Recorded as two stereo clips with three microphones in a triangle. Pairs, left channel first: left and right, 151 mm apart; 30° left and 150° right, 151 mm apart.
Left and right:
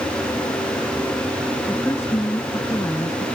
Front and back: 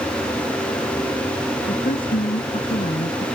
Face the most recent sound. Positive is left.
turn(degrees=25)